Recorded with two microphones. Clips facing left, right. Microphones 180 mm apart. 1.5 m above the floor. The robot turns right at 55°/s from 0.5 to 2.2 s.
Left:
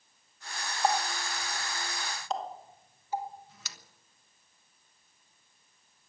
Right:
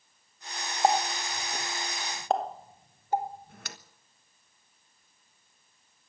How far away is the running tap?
About 1.2 m.